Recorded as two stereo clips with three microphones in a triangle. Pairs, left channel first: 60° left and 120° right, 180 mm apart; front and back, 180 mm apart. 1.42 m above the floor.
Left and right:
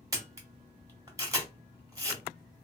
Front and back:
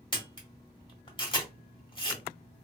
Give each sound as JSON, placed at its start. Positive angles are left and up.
{"t": 0.1, "sound": "a camera shutter", "azimuth_deg": -50, "distance_m": 1.4}